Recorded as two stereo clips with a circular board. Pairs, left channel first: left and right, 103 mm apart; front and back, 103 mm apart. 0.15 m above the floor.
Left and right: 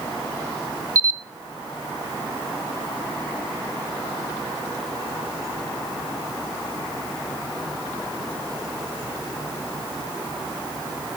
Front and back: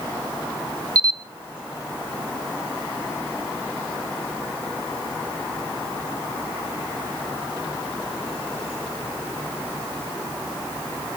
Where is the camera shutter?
140° right, 0.8 m.